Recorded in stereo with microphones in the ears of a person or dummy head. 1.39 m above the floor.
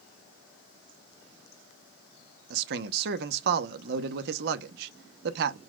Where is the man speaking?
60° right (ahead or behind), 0.7 m.